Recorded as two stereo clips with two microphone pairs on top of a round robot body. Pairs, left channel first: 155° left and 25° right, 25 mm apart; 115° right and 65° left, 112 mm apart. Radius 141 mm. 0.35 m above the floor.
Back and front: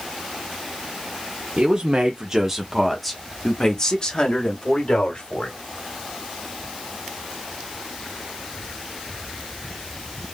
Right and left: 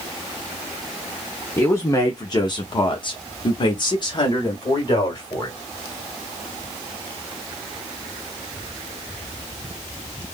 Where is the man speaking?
45° right, 1.3 m; by 5.6 s 175° right, 2.5 m.